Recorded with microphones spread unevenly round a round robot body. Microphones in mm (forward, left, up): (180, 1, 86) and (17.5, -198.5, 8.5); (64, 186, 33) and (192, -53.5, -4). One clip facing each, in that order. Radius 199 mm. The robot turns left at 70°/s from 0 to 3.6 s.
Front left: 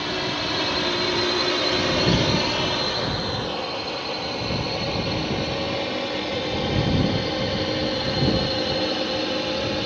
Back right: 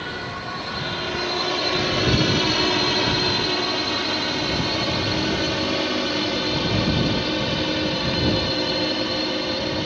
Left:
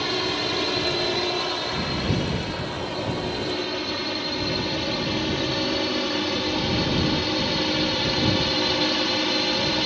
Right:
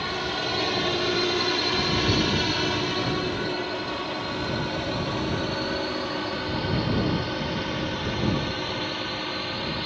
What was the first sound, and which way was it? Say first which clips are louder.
A drone: front left 5 dB, left 4 dB; 95° left.